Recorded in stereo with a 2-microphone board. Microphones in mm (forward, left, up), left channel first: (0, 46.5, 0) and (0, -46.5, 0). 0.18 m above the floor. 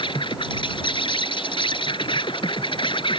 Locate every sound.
0.0 s an insect: 65° left (ahead or behind)